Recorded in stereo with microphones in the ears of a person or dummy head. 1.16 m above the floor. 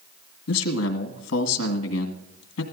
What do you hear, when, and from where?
0.5 s a man speaking: 80° left, 1.6 m